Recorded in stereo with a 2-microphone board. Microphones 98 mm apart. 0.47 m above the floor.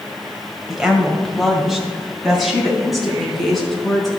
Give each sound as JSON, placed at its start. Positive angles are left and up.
{"t": 0.7, "sound": "a woman speaking", "side_deg": -5, "distance_m": 1.8}